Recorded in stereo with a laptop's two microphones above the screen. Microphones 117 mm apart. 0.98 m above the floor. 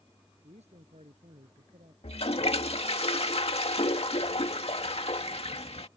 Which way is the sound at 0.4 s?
70° right (ahead or behind).